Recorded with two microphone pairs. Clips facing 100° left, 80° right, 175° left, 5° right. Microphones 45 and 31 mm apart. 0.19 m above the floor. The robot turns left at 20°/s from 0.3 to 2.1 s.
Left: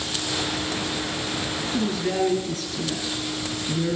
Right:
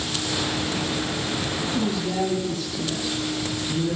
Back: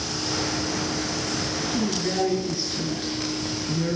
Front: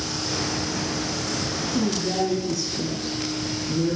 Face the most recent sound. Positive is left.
turn(degrees=125)